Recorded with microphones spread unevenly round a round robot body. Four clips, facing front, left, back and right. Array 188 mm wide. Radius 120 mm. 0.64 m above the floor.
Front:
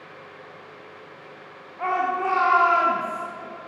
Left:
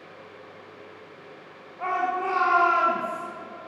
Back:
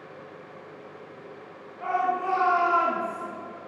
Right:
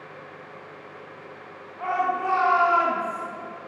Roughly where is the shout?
Ahead.